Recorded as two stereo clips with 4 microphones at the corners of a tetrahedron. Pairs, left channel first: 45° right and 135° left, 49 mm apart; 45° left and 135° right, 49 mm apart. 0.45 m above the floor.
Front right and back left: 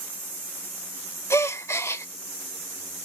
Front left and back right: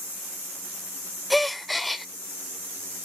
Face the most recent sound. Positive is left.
turn(degrees=-45)